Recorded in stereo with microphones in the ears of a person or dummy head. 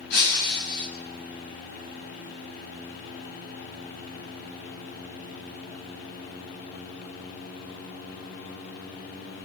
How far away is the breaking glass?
About 6.5 m.